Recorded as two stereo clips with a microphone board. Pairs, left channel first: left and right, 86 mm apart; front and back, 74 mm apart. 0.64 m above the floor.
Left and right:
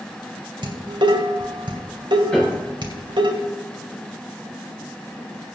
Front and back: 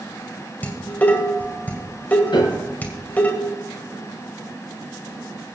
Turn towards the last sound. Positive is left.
turn(degrees=10)